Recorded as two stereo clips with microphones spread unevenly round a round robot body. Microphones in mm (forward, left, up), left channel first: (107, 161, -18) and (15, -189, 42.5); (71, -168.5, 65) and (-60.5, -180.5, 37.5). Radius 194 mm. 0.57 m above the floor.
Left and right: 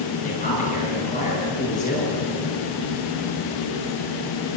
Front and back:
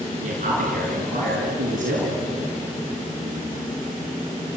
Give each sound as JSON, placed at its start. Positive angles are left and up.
{"t": 0.2, "sound": "a man speaking", "azimuth_deg": 145, "distance_m": 8.0}